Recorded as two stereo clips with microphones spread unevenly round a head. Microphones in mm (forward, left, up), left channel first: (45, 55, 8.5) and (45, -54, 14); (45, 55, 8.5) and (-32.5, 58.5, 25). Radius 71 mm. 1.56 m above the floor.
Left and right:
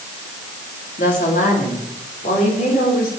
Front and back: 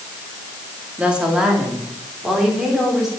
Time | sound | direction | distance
1.0 | a woman speaking | 105° left | 3.5 m